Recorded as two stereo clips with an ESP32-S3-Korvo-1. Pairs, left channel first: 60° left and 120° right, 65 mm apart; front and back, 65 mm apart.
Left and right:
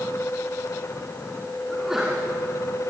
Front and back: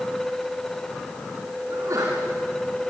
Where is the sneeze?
155° left, 3.5 m.